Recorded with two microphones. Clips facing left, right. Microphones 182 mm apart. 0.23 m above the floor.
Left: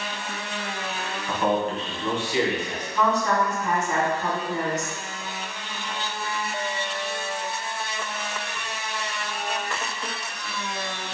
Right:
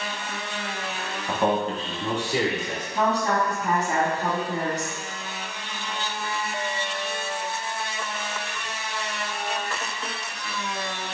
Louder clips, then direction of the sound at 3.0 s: Left 1 dB; 35° right (ahead or behind).